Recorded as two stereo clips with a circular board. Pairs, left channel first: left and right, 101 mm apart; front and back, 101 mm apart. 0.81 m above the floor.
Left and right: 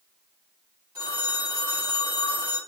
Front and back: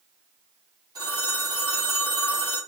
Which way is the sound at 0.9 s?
135° right.